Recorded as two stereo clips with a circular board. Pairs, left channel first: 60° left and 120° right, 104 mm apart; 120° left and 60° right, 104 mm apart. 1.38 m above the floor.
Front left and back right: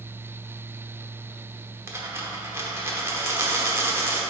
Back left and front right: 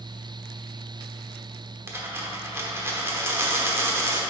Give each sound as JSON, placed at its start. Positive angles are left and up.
{"t": 1.9, "sound": "a dropped coin", "azimuth_deg": -90, "distance_m": 1.1}